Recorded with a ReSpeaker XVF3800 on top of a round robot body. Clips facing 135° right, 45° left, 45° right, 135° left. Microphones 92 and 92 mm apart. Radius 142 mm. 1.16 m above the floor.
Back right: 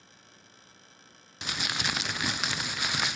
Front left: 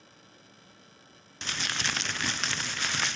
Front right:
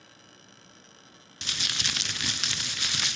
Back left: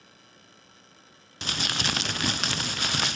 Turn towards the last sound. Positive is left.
turn(degrees=145)